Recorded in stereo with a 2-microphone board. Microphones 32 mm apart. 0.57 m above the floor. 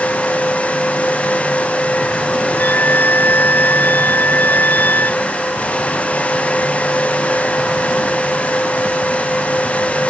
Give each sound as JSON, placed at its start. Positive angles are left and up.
{"t": 2.6, "sound": "a violin", "side_deg": 85}